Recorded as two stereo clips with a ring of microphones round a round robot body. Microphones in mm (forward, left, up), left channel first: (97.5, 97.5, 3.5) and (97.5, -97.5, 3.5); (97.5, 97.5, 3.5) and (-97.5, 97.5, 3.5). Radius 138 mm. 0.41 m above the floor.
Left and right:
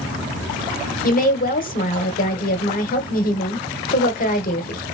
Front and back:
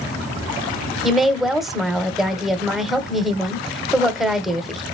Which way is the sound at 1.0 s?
90° left.